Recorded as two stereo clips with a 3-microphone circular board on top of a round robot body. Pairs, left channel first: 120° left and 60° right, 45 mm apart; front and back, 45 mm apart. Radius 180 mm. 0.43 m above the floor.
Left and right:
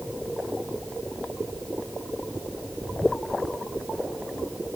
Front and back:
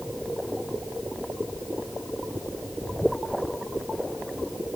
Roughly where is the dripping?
No dripping in this recording.